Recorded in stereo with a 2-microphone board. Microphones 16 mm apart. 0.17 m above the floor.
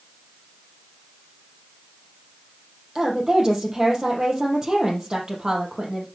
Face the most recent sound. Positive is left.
turn(degrees=-30)  # may be behind; listen again after turning